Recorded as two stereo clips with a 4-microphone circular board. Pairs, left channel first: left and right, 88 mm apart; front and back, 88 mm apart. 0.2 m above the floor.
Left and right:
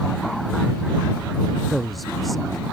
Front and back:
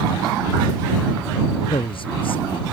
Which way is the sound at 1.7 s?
Straight ahead.